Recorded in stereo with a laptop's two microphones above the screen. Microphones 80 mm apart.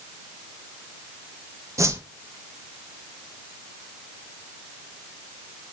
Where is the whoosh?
35° right (ahead or behind), 1.2 m.